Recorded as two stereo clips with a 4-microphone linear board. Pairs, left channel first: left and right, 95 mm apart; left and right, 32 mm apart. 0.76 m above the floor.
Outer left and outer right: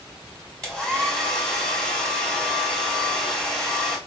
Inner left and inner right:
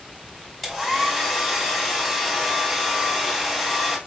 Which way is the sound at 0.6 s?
10° left (ahead or behind).